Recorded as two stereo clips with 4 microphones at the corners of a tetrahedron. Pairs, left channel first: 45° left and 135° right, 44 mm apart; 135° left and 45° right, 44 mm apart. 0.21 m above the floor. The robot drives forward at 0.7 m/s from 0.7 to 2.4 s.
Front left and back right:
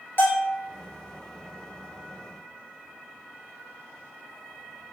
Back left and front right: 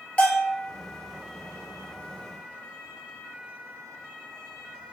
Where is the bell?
75° left, 1.1 m.